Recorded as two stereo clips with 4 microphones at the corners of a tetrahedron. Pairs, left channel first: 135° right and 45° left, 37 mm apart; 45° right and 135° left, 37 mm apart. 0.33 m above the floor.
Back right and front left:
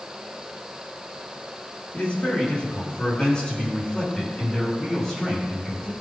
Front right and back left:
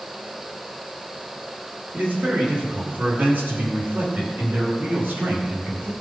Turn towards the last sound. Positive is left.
turn(degrees=145)